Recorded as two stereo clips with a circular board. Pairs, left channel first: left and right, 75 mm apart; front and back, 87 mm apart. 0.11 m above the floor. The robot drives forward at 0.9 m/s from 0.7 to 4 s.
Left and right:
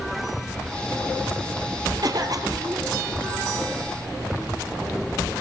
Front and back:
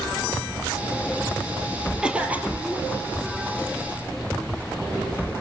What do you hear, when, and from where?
2.0 s a cough: 105° right, 2.5 m; by 2.9 s 120° right, 3 m